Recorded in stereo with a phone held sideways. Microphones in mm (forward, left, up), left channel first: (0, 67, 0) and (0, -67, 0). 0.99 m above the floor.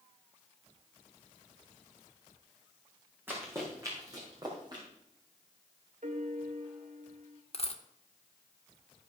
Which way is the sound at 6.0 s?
70° right (ahead or behind).